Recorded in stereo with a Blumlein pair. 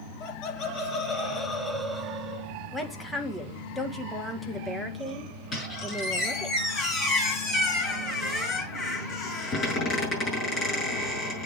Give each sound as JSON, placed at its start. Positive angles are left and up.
{"t": 0.2, "sound": "laughter", "azimuth_deg": 35, "distance_m": 2.0}
{"t": 2.7, "sound": "a woman speaking", "azimuth_deg": 5, "distance_m": 1.6}
{"t": 5.5, "sound": "a squeak", "azimuth_deg": 25, "distance_m": 6.0}